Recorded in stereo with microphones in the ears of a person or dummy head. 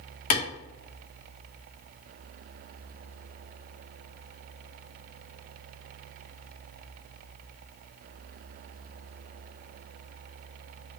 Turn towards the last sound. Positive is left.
turn(degrees=40)  # may be behind; listen again after turning